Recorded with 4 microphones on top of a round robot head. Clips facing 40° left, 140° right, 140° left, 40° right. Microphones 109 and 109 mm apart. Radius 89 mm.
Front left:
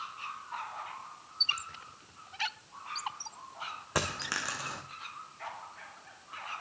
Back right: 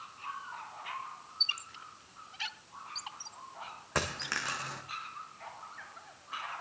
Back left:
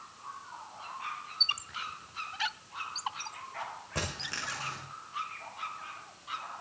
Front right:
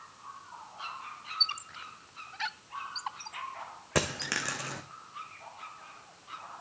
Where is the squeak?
55° left, 1.1 m.